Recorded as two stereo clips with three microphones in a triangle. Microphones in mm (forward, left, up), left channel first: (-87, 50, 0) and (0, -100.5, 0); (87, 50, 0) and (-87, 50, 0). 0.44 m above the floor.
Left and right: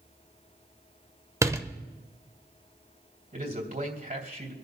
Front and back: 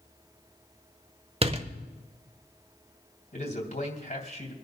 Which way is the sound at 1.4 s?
130° right.